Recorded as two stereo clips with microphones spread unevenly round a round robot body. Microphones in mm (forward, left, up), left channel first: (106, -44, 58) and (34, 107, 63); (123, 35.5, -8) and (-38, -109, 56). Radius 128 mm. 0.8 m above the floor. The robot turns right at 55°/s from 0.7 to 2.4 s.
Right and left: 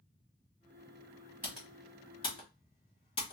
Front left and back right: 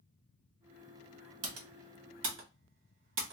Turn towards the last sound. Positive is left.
turn(degrees=-110)